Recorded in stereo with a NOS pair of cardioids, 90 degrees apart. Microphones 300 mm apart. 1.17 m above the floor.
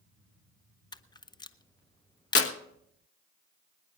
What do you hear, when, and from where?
0.9 s a camera shutter: 15° left, 0.7 m
2.4 s a clap: 45° left, 1.6 m